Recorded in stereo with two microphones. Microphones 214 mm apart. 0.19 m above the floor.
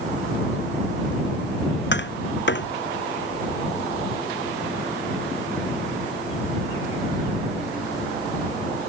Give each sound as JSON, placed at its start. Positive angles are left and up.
{"t": 1.9, "sound": "tapping", "side_deg": 55}